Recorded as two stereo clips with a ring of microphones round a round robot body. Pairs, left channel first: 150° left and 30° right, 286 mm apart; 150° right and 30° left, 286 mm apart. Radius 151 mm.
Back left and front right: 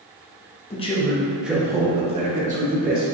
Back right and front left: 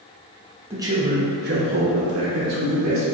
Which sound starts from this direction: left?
A man speaking, at 0.7 s.